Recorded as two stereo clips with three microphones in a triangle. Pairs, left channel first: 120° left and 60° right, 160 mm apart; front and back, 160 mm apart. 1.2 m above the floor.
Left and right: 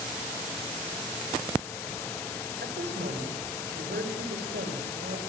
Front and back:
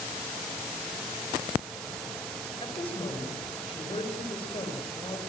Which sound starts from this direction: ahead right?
A woman speaking, at 2.6 s.